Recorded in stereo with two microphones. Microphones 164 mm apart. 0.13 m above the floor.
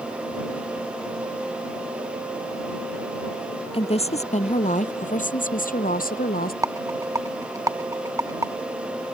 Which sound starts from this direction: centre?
A rattle, at 6.6 s.